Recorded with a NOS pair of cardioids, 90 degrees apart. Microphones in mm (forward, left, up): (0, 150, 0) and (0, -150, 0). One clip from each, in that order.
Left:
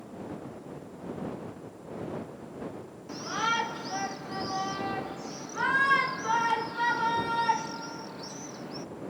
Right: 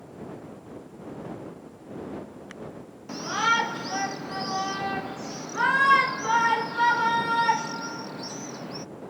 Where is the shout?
30° right.